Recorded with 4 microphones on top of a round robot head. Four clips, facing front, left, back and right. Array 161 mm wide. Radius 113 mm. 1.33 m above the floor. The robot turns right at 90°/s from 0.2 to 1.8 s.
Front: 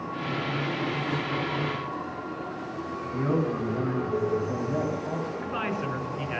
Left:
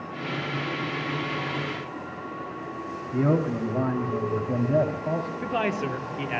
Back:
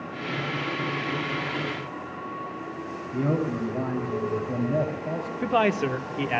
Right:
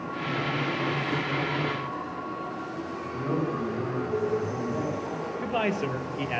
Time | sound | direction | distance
3.1 | a man speaking | 105° left | 4 m
5.4 | a man speaking | 175° right | 2 m